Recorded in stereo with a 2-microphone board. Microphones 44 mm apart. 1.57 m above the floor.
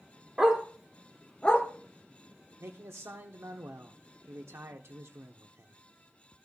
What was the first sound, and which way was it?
A dog barking, 15° right (ahead or behind).